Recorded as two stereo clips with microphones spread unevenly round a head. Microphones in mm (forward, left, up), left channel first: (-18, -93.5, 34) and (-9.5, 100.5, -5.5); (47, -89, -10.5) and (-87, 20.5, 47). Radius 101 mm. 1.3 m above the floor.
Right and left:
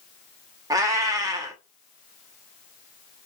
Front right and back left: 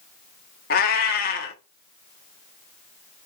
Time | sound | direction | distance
0.7 | a cat meowing | 10° left | 0.9 m